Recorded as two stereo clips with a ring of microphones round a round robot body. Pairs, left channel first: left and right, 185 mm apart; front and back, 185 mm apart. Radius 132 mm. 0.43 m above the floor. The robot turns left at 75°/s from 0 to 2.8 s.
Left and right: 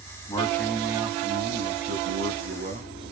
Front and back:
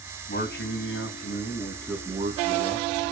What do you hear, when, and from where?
0.3 s a man speaking: 30° left, 3 m; by 3.1 s 160° right, 3 m